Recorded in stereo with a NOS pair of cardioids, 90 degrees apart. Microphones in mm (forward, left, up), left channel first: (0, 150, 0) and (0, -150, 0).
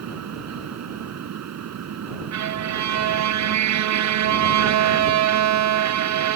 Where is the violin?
65° right.